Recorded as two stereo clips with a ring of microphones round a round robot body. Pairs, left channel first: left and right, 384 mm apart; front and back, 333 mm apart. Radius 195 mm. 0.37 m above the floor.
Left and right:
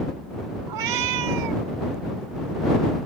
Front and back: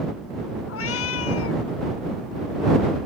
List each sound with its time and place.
0.7 s a cat meowing: 55° right